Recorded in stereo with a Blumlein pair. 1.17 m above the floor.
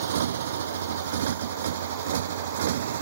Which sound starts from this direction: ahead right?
A motorcycle, at 0.0 s.